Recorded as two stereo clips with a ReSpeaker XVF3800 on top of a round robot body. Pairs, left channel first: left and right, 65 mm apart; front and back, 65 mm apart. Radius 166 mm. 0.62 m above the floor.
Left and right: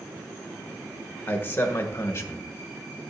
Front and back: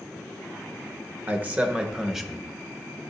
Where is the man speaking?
135° left, 1.4 m; by 2.5 s 90° left, 1.3 m.